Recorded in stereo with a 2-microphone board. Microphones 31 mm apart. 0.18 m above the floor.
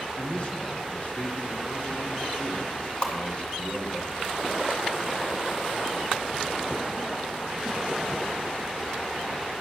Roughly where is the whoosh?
Left.